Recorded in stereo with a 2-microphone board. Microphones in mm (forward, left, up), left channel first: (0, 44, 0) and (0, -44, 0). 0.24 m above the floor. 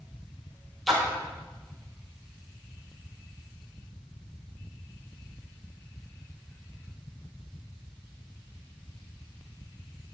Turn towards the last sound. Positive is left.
turn(degrees=0)  # may be behind; listen again after turning